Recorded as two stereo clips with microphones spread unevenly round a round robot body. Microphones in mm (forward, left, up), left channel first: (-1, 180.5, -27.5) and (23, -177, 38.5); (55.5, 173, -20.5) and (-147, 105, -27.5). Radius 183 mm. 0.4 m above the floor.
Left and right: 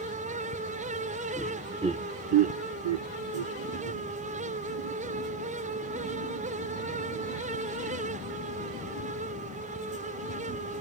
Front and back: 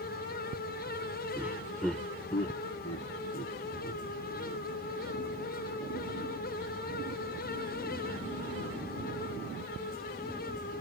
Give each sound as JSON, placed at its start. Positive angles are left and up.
{"t": 1.4, "sound": "laughter", "azimuth_deg": 135}